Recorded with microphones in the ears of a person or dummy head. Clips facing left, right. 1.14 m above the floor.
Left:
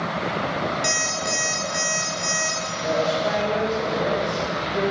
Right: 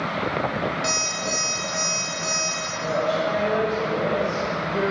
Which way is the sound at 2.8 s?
30° right (ahead or behind).